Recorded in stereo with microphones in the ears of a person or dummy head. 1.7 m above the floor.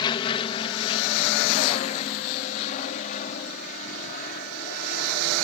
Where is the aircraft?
25° left (ahead or behind); by 5.4 s 45° left (ahead or behind).